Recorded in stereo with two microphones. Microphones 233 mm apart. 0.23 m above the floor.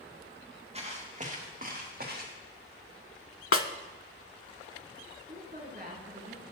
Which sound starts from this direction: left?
A snare drum, at 3.5 s.